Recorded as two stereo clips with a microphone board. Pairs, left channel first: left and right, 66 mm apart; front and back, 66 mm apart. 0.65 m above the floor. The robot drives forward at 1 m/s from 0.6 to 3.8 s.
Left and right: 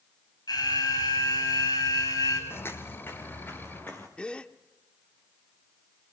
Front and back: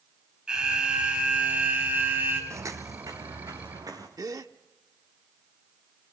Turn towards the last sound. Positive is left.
turn(degrees=165)